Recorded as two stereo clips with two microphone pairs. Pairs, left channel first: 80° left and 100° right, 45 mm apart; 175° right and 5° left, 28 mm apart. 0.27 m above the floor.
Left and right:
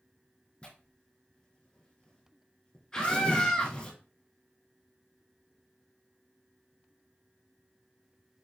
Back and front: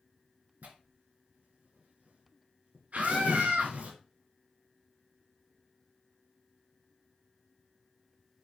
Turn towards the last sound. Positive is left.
turn(degrees=0)